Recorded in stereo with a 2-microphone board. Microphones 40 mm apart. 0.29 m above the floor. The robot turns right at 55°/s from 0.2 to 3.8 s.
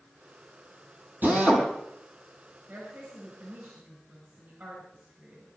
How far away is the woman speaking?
About 4.5 m.